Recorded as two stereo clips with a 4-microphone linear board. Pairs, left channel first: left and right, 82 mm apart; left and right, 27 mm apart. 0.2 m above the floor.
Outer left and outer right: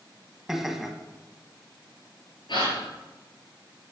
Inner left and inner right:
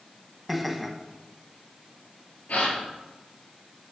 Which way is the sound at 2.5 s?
70° left (ahead or behind).